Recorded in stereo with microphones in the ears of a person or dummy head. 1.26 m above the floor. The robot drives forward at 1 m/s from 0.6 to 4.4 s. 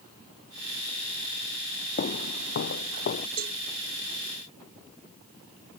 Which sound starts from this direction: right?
A cowbell, at 3.4 s.